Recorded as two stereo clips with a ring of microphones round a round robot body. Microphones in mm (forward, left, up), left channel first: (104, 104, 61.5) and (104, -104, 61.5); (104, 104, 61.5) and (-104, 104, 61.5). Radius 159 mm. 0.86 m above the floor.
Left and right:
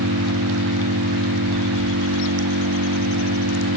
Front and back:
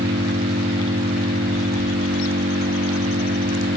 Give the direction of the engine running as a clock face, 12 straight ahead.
4 o'clock.